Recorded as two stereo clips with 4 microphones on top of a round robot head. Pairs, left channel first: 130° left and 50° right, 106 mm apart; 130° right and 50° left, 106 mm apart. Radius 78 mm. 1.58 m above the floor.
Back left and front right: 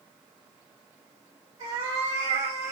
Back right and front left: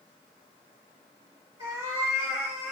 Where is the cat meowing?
15° right, 2.5 m; by 2.7 s 30° right, 1.9 m.